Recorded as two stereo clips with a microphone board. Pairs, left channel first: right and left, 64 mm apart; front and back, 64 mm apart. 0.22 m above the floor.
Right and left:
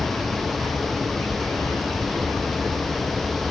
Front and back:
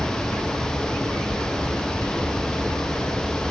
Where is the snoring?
I don't hear snoring.